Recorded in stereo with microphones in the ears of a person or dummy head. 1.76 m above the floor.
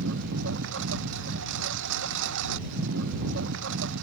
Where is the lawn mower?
70° right (ahead or behind).